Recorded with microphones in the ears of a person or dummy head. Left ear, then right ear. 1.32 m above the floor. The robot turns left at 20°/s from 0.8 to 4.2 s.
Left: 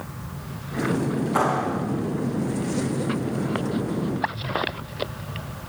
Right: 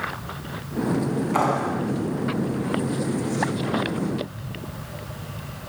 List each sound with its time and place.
1.3 s a clap: 15° right (ahead or behind), 8.5 m; by 1.8 s 5° right (ahead or behind), 8.5 m